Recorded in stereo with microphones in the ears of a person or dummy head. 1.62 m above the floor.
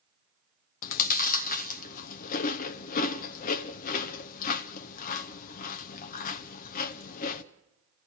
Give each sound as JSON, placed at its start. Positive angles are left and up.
{"t": 0.8, "sound": "chewing", "side_deg": 45, "distance_m": 0.7}